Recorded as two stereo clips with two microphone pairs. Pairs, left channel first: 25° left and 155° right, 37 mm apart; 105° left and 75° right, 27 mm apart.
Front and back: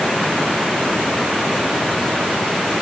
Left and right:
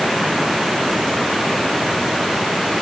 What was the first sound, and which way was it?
Only background noise.